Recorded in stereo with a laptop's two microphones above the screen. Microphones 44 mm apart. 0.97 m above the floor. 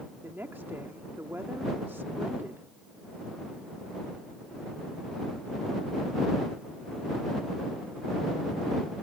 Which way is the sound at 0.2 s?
55° right (ahead or behind).